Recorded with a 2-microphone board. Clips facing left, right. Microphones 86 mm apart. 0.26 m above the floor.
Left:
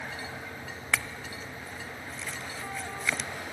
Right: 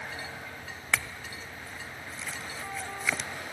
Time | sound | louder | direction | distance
0.9 | a clink | even | 5° right (ahead or behind) | 0.6 m